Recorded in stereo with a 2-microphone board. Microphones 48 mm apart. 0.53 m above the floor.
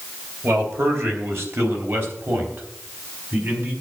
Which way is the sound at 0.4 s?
60° right (ahead or behind).